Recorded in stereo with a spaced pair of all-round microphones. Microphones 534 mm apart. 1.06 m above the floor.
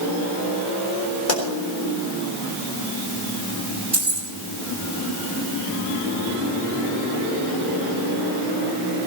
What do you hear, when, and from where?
1.3 s a pop: 85° left, 4 m
3.9 s keys jangling: 85° right, 4 m